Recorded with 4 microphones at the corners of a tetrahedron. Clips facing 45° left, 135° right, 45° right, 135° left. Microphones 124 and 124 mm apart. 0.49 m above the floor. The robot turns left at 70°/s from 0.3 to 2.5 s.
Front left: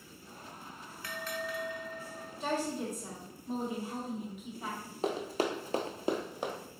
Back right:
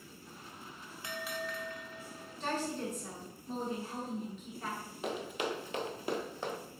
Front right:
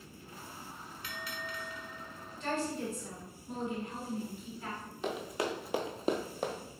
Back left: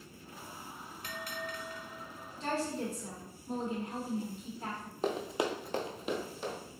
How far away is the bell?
About 0.6 m.